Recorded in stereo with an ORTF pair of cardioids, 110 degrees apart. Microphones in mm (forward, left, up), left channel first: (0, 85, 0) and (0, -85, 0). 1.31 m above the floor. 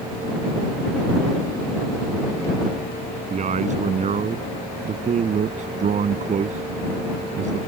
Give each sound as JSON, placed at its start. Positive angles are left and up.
{"t": 3.3, "sound": "a man speaking", "azimuth_deg": -45}